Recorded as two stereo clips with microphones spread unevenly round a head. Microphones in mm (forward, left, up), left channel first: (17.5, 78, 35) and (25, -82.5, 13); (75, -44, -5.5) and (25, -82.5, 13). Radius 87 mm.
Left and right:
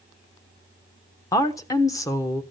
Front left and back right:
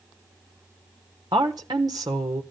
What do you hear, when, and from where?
1.3 s a woman speaking: 165° left, 1.1 m